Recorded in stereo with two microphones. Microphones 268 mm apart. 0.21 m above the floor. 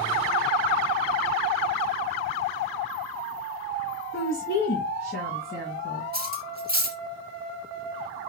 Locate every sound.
4.1 s a woman speaking: 60° left (ahead or behind), 3 m; by 6.0 s 35° left (ahead or behind), 2 m
6.1 s cutlery clinking: 35° right (ahead or behind), 1.5 m